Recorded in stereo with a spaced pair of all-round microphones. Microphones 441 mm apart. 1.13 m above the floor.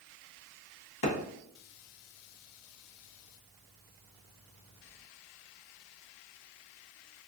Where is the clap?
60° left (ahead or behind), 0.8 m.